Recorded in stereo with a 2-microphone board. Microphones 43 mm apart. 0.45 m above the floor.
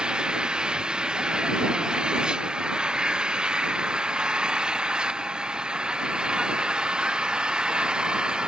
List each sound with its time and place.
0.0 s an engine running: 20° right (ahead or behind)